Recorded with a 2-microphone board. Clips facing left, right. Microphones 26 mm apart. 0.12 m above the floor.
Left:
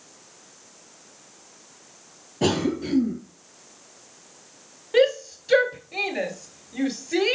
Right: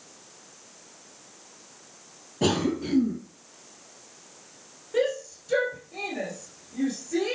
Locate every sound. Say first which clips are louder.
2.4 s a cough: left 2 dB; 5° left (ahead or behind), 2.5 m
4.9 s a shout: left 6 dB; 55° left (ahead or behind), 1.8 m